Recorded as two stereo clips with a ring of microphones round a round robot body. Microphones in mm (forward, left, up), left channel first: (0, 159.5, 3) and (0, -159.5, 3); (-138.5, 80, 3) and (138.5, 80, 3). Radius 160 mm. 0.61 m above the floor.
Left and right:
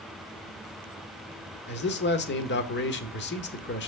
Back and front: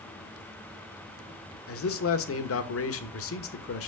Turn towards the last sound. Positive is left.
turn(degrees=145)